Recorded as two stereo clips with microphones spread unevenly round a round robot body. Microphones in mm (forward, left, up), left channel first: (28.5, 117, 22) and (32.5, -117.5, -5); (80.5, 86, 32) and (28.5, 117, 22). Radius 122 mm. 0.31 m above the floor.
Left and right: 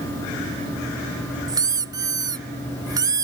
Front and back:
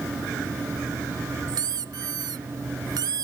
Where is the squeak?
165° right.